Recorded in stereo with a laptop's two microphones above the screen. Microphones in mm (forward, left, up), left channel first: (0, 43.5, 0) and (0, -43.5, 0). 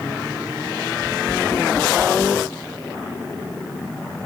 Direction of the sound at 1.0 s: 45° right (ahead or behind).